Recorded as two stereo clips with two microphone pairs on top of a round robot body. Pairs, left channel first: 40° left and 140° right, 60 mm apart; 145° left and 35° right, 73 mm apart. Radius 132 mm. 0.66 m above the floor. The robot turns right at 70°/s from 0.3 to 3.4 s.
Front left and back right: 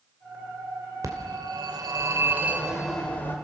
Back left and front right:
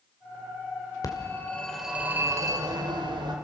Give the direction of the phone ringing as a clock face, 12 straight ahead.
6 o'clock.